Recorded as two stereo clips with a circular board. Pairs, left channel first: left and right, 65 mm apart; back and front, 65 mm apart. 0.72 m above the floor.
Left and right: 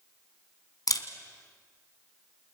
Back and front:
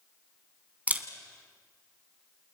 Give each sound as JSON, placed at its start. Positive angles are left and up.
{"t": 0.9, "sound": "a camera shutter", "azimuth_deg": 65, "distance_m": 1.7}